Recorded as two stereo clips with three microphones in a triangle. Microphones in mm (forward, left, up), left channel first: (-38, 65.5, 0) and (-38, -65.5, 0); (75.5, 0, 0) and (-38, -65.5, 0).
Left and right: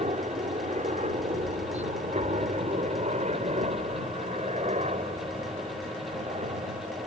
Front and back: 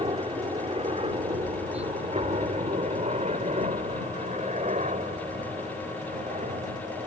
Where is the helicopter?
110° right; by 7.1 s 125° right.